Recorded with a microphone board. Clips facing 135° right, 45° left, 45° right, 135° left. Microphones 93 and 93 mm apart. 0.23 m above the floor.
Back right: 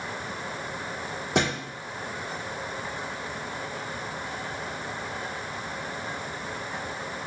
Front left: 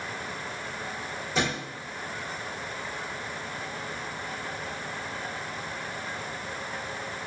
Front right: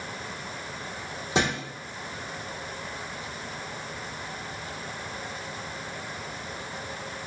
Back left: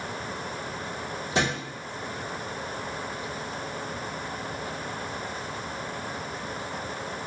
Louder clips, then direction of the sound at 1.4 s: Back right 3 dB, front right 1 dB; 110° right.